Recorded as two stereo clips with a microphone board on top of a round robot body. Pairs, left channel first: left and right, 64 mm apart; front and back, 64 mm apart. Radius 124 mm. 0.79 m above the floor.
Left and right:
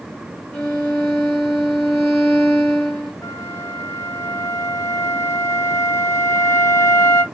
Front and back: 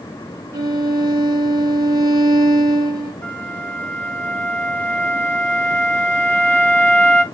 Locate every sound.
0.5 s a violin: 160° left, 0.6 m
3.2 s a flute: 65° left, 1.3 m